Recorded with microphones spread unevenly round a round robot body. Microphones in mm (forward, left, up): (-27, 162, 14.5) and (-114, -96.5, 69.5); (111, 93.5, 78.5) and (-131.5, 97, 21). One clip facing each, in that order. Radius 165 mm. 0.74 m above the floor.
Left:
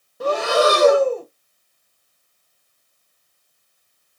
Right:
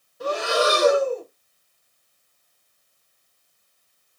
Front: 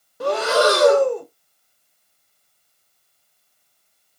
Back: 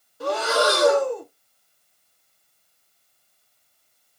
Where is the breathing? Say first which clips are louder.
Left 5 dB, front 4 dB; 25° left, 1.3 m.